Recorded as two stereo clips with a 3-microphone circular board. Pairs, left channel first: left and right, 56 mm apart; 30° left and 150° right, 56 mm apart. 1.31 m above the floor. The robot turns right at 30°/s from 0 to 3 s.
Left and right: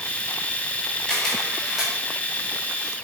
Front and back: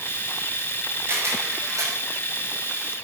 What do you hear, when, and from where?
1.1 s a camera shutter: 165° left, 7 m; by 1.9 s 170° right, 7 m